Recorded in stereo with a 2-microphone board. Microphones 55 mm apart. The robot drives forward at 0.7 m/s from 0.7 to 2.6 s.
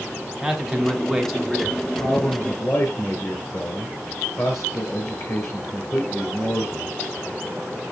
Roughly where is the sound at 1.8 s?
Left.